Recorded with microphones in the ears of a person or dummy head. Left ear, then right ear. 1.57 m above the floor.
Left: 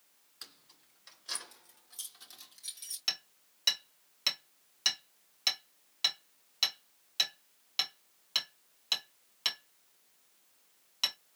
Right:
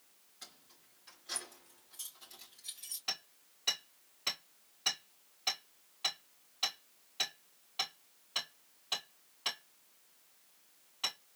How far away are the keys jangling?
About 1.8 m.